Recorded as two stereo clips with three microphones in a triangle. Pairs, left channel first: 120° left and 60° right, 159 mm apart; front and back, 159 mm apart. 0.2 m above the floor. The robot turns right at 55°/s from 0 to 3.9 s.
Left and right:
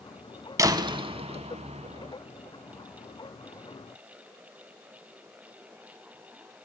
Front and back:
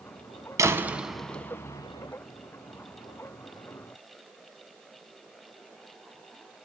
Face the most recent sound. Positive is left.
turn(degrees=60)